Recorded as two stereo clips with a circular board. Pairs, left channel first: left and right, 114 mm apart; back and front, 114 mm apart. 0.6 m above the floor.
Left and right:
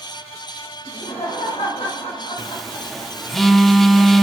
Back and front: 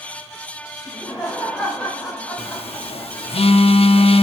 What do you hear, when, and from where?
0.8 s laughter: 100° left, 2.5 m
2.4 s a phone buzzing: straight behind, 0.7 m